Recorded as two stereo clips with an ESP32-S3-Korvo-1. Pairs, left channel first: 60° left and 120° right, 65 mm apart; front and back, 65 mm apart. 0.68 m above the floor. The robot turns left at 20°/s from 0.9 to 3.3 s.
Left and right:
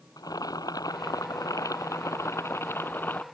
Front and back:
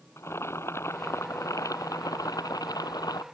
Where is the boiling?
45° left; by 3.2 s straight ahead.